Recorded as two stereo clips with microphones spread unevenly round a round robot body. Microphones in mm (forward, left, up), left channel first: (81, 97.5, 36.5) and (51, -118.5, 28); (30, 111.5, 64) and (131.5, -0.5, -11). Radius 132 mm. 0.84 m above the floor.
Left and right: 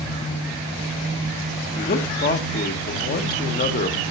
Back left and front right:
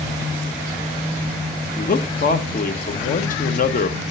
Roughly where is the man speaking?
Left.